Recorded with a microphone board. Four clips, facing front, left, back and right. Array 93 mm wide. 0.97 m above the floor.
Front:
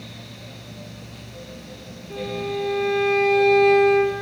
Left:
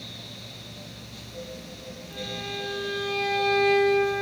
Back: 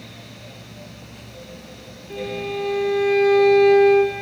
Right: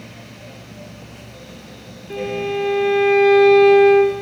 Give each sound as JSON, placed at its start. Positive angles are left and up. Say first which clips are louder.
{"t": 2.1, "sound": "a violin", "louder": "right 14 dB, even", "azimuth_deg": -100, "distance_m": 1.7}